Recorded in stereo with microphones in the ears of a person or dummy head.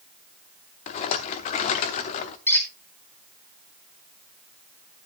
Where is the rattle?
35° left (ahead or behind), 0.9 m.